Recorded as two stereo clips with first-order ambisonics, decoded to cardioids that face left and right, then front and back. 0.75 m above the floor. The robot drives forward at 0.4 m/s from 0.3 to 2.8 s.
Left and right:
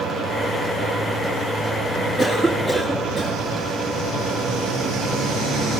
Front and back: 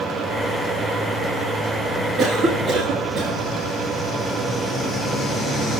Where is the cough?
160° left, 1.1 m; by 3.4 s 165° left, 1.3 m.